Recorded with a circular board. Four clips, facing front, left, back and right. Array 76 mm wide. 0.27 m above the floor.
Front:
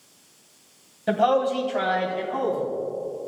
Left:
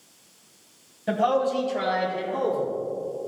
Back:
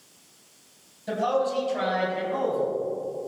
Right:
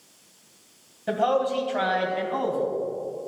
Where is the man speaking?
Straight ahead, 1.4 m; by 2.7 s 90° right, 2 m.